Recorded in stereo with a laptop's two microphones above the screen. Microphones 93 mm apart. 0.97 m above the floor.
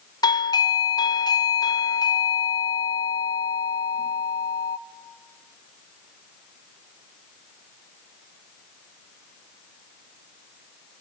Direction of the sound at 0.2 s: 45° left (ahead or behind).